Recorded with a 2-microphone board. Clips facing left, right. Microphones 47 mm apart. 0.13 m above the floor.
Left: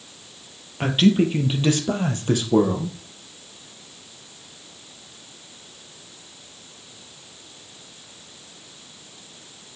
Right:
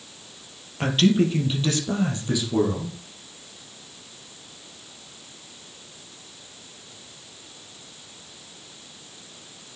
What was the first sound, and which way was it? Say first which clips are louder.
A man speaking: left 2 dB; 5° left (ahead or behind).